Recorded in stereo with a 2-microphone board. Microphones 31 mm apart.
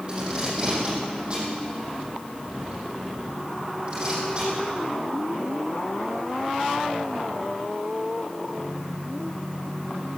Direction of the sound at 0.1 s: 35° right (ahead or behind).